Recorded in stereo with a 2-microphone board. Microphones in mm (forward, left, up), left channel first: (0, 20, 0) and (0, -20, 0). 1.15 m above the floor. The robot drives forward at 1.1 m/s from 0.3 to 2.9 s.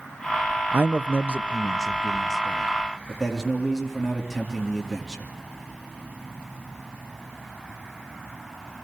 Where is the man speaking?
45° right (ahead or behind), 0.5 m; by 5.3 s 10° right (ahead or behind), 2.5 m.